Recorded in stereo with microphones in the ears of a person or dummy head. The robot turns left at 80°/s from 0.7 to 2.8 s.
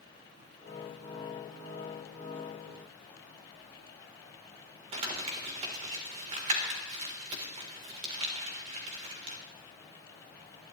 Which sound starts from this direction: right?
Crumpling, at 4.9 s.